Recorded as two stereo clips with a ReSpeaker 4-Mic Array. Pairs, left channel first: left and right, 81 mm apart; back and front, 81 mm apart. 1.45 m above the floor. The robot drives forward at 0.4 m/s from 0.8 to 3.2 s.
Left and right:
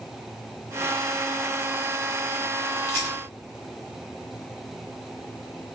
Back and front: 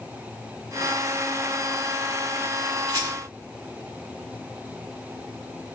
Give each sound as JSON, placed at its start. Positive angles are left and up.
{"t": 2.9, "sound": "a rattle", "azimuth_deg": 40, "distance_m": 1.7}